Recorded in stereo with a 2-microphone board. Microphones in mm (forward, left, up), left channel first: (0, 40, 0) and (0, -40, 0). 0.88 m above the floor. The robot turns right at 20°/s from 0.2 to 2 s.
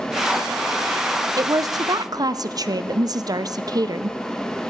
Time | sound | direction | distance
1.4 | a woman speaking | 50° right (ahead or behind) | 0.5 m